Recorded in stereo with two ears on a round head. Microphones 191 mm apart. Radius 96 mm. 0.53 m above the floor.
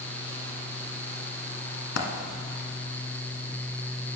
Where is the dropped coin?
60° left (ahead or behind), 1.2 m.